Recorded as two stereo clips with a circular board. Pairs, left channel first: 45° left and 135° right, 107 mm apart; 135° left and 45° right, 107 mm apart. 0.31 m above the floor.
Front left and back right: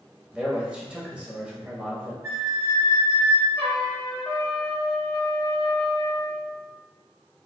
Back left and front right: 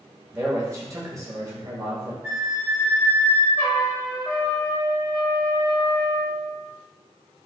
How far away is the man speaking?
About 1.0 m.